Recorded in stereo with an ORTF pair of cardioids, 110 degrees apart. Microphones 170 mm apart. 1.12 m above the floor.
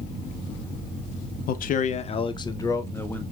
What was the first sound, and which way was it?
A man speaking, 60° left.